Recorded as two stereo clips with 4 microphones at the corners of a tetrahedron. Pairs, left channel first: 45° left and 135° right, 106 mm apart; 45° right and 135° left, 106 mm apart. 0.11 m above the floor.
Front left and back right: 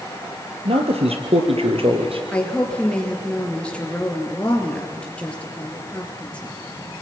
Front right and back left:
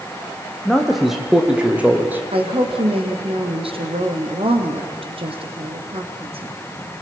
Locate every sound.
0.7 s a man speaking: 135° right, 3.5 m; by 2.2 s 155° right, 3 m
2.3 s a woman speaking: 125° left, 3.5 m